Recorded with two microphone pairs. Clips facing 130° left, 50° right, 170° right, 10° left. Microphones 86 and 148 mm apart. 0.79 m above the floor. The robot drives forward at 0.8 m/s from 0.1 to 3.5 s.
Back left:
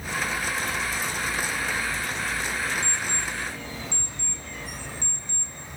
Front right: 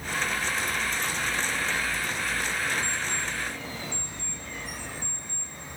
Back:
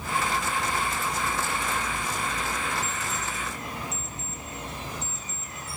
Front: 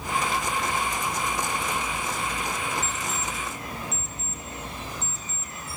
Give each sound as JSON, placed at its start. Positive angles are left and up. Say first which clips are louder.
{"t": 2.8, "sound": "an alarm clock", "louder": "back left 1 dB, front 1 dB", "azimuth_deg": 115, "distance_m": 5.0}